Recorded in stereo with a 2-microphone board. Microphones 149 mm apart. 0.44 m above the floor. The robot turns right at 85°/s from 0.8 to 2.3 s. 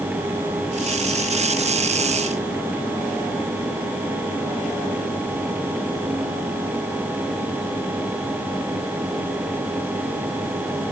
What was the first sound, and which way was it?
Only background noise.